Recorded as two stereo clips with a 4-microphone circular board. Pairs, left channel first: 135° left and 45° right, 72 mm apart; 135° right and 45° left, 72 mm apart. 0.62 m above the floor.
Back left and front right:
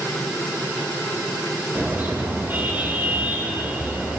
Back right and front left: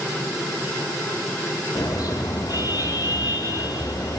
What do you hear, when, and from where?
1.8 s a car horn: 110° right, 9.5 m; by 4.2 s 115° right, 9.5 m